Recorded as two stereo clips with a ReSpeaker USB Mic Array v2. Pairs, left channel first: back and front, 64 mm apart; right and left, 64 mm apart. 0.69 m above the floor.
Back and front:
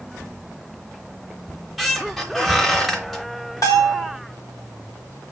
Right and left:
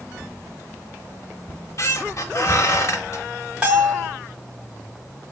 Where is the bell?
160° left, 1.2 m.